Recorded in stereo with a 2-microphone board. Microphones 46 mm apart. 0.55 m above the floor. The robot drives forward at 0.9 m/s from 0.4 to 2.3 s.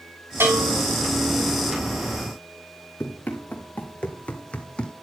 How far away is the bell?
About 6.5 m.